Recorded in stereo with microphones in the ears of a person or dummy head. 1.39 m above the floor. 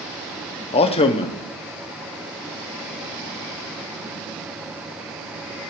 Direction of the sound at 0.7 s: 35° left (ahead or behind).